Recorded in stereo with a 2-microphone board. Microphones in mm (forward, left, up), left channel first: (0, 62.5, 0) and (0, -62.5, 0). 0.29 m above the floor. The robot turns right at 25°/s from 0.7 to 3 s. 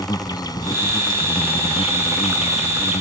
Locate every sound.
0.0 s an insect: 40° left; by 3.0 s 95° left